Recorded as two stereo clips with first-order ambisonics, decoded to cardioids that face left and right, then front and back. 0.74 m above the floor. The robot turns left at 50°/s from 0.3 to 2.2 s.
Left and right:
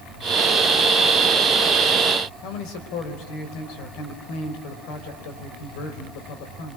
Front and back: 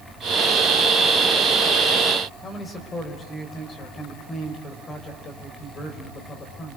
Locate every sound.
2.4 s a man speaking: 75° left, 4.5 m